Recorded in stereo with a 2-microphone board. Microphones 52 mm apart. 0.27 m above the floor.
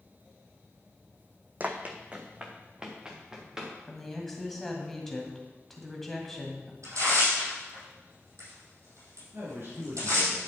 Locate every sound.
1.6 s running footsteps: 35° right (ahead or behind), 0.8 m; by 3.7 s 10° right (ahead or behind), 2.5 m
3.9 s a woman speaking: 5° left (ahead or behind), 1.9 m
6.8 s tearing paper: 80° right, 4.5 m
9.3 s a man speaking: 55° right (ahead or behind), 3.5 m